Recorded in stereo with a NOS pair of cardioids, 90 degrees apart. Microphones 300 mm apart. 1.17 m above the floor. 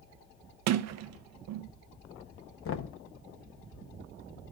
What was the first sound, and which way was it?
A sliding door, 65° right.